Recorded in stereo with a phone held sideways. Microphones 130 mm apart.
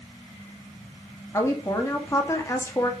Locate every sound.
1.3 s a woman speaking: 25° left (ahead or behind), 1.8 m